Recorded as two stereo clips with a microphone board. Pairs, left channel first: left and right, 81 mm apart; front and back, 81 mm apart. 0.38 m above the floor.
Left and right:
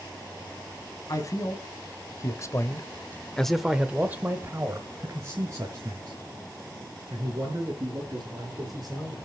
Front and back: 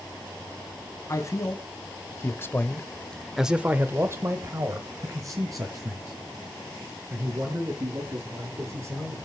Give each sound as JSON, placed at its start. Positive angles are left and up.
{"t": 1.1, "sound": "a man speaking", "azimuth_deg": 50, "distance_m": 2.5}